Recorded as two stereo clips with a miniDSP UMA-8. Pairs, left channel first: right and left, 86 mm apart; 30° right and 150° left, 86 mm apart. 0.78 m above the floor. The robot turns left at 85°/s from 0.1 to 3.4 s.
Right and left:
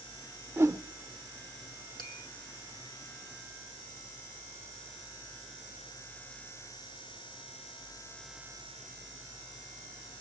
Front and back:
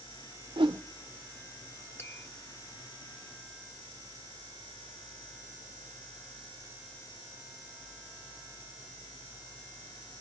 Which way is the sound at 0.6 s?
155° left.